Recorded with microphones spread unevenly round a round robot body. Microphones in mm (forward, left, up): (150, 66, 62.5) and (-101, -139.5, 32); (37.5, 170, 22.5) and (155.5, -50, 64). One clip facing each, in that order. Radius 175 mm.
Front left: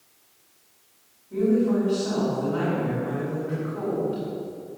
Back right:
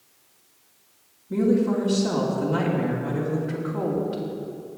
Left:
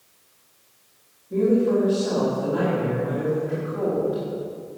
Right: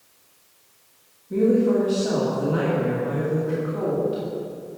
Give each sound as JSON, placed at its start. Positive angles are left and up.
{"t": 1.3, "sound": "a woman speaking", "azimuth_deg": -130, "distance_m": 2.5}